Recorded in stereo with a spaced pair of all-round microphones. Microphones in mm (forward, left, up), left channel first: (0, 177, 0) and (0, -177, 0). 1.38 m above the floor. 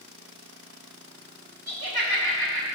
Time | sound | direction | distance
1.7 | laughter | 85° right | 1.6 m